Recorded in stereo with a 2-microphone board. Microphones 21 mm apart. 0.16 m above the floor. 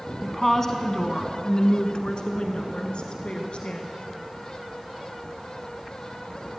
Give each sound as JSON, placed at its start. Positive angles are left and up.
{"t": 0.2, "sound": "a woman speaking", "side_deg": 10, "distance_m": 1.0}